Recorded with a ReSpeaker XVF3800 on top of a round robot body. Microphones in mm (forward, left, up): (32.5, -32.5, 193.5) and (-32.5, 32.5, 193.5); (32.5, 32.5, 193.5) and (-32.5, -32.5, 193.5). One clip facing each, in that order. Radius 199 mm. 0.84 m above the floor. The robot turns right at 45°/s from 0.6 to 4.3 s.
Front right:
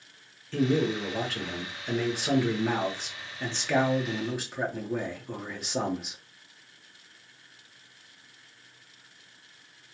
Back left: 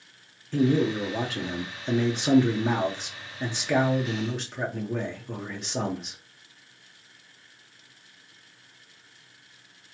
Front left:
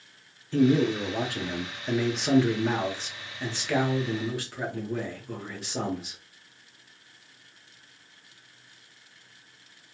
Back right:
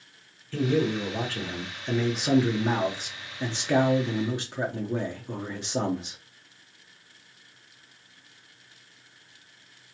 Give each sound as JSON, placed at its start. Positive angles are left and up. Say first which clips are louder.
{"t": 0.5, "sound": "a man speaking", "louder": "back left 3 dB, front left 3 dB", "azimuth_deg": 65, "distance_m": 1.0}